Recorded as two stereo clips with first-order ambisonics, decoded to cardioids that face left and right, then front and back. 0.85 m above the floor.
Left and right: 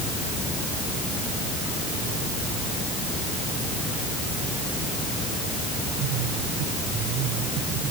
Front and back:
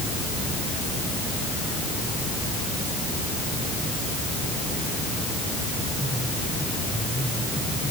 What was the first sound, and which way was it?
Only background noise.